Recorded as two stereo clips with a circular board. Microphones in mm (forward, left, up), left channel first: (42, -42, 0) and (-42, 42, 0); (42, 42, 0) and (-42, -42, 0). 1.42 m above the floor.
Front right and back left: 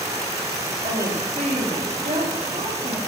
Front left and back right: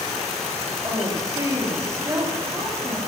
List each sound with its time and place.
0.8 s a woman speaking: 160° left, 3 m